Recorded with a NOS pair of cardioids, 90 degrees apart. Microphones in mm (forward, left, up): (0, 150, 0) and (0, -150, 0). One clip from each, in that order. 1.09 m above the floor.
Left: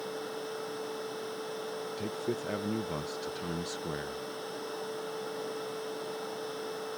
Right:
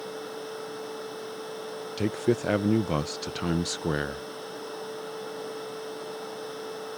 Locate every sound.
0.0 s a machine running: 10° right
2.0 s a man speaking: 45° right